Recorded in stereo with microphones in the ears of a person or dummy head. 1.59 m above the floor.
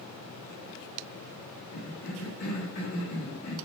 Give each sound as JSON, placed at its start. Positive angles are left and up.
{"t": 1.7, "sound": "a cough", "side_deg": 35, "distance_m": 0.7}